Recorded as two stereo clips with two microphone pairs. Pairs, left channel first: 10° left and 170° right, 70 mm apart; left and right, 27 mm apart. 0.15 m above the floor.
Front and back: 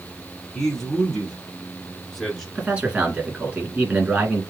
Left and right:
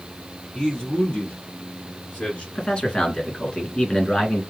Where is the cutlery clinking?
I don't hear cutlery clinking.